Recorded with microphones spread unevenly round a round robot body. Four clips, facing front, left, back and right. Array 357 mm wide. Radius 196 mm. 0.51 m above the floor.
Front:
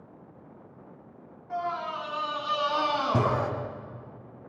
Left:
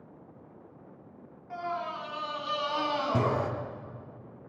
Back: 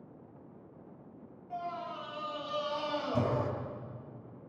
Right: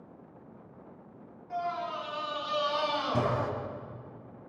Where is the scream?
15° left, 7 m; by 3.5 s 25° left, 5.5 m.